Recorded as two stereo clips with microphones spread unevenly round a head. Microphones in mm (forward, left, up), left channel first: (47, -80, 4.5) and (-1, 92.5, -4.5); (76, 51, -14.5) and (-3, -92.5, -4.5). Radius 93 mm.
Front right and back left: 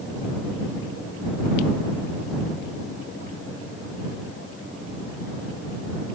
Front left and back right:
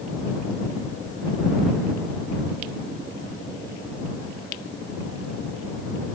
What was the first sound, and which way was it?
Only background noise.